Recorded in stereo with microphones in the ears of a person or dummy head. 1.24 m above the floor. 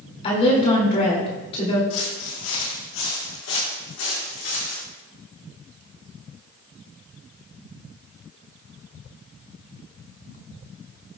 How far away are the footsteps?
About 2.5 m.